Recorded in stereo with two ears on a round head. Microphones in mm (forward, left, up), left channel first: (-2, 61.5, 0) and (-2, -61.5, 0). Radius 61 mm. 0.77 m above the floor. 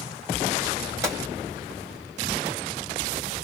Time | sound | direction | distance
1.0 | a gunshot | 20° right (ahead or behind) | 1.7 m